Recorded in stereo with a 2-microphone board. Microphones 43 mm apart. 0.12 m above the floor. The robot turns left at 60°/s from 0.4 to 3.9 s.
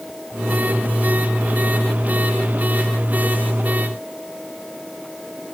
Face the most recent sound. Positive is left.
No sound to turn to.